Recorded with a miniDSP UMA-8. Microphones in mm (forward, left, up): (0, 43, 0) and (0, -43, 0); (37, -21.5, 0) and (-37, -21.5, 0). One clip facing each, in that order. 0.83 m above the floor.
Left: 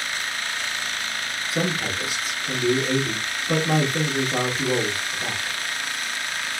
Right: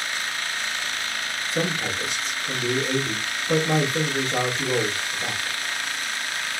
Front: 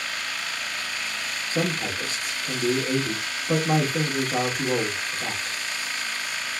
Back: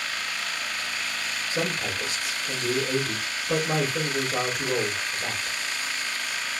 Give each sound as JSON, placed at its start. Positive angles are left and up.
{"t": 1.5, "sound": "a man speaking", "azimuth_deg": 10, "distance_m": 1.3}